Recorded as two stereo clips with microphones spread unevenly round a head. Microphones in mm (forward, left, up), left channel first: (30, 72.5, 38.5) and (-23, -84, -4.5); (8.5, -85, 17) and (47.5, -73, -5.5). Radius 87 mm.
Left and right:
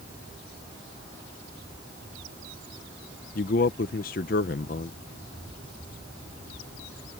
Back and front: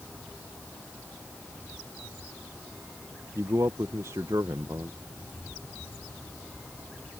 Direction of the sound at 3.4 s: 80° left.